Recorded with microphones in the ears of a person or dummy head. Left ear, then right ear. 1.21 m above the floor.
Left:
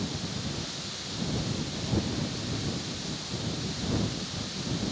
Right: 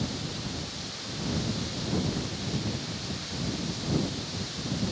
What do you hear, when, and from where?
Only background noise.